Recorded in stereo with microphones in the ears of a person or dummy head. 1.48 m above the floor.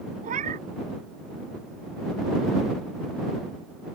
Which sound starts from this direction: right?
A cat meowing, at 0.2 s.